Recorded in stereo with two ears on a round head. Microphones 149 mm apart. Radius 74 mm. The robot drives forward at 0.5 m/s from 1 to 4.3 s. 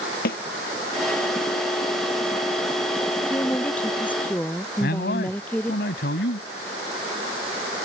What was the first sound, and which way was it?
A snare drum, 65° left (ahead or behind).